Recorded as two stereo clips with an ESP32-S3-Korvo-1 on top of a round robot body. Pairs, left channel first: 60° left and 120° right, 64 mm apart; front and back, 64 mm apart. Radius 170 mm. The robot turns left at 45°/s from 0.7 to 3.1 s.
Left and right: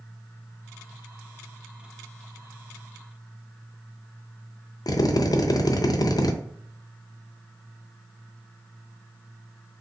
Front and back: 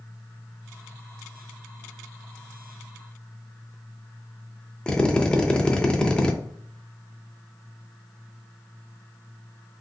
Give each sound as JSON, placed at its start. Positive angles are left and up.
{"t": 4.9, "sound": "a drill", "azimuth_deg": 75, "distance_m": 0.5}